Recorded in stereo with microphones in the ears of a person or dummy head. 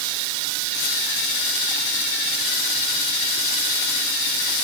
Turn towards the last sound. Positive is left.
No sound to turn to.